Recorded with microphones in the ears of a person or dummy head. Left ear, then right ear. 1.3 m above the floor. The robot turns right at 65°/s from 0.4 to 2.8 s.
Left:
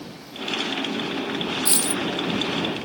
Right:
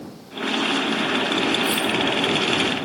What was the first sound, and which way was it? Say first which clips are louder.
A dropped coin: right 4 dB; 30° left (ahead or behind).